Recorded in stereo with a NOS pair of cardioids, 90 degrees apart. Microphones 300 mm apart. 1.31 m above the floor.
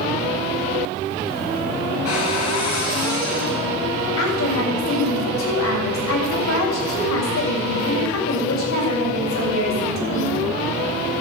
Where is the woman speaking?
65° left, 7 m.